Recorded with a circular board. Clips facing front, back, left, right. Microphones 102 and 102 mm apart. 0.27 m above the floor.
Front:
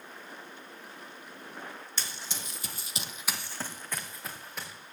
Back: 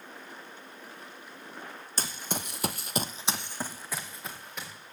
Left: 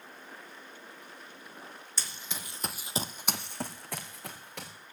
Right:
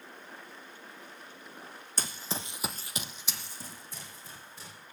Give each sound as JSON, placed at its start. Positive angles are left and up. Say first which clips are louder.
{"t": 2.0, "sound": "running footsteps", "louder": "back 9 dB, right 6 dB", "azimuth_deg": -130, "distance_m": 1.1}